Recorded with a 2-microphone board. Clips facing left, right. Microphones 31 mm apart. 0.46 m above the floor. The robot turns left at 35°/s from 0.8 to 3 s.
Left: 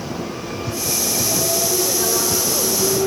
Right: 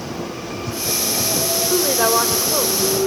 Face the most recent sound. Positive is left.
turn(degrees=-150)